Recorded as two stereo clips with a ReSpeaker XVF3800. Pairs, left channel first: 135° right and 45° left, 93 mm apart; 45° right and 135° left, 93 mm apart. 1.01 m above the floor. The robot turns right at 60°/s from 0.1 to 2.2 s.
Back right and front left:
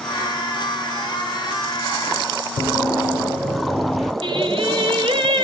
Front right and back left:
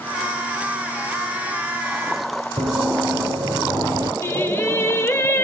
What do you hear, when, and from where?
2.6 s running footsteps: 135° left, 2.5 m; by 4.1 s 140° left, 1.1 m
4.2 s singing: 20° left, 0.8 m